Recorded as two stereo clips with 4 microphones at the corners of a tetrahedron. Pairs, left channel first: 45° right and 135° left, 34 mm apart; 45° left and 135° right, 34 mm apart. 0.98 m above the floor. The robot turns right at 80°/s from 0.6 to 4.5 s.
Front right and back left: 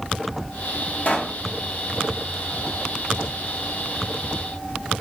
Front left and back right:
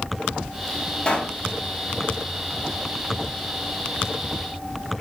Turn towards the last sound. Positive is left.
turn(degrees=-100)